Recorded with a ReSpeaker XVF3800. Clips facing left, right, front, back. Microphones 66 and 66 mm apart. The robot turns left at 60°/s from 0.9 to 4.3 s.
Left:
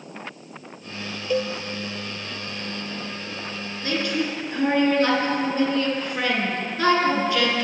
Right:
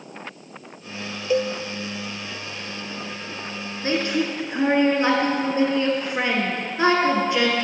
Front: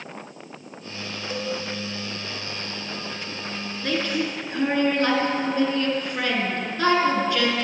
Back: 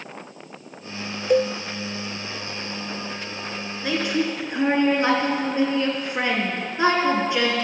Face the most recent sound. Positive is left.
turn(degrees=-135)